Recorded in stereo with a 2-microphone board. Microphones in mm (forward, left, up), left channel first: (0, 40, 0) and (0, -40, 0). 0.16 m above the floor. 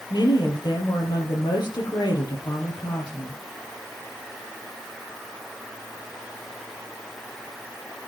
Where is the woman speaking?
60° left (ahead or behind), 4 m.